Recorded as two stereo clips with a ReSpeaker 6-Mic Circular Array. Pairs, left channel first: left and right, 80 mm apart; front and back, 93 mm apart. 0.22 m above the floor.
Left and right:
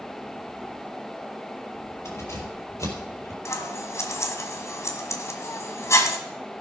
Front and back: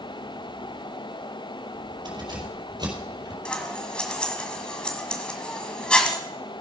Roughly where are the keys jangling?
Behind left.